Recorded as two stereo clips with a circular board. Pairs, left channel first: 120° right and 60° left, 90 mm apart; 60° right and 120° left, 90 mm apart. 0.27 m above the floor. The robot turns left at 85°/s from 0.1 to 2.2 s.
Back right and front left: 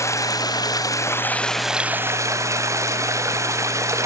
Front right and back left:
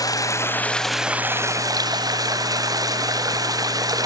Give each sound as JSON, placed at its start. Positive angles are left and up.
{"t": 0.0, "sound": "running water", "azimuth_deg": -80, "distance_m": 1.7}